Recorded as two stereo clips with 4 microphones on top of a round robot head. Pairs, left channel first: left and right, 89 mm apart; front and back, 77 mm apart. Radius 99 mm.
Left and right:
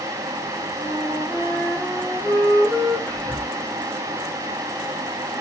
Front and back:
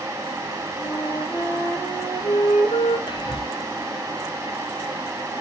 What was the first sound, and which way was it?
A flute, 5° right.